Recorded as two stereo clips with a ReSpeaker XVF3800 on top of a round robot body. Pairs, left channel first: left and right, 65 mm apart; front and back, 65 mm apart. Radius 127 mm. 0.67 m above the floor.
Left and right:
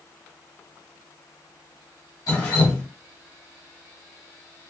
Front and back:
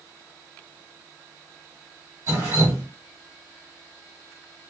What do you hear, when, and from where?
2.3 s dripping: 130° left, 1.4 m